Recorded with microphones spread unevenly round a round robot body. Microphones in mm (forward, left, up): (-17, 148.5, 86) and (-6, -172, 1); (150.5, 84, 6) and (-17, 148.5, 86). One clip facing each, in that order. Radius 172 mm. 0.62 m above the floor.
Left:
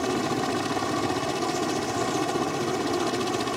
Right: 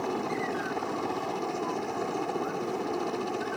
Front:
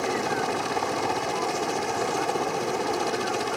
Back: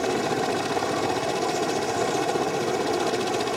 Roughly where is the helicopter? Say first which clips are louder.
Left 5 dB, back 3 dB; left.